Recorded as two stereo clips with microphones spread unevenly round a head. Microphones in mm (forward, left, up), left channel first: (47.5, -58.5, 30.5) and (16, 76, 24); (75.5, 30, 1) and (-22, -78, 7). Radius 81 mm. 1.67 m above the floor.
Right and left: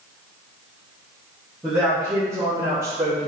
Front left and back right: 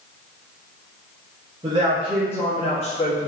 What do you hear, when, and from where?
1.6 s a man speaking: 175° right, 0.6 m; by 3.3 s 35° left, 0.8 m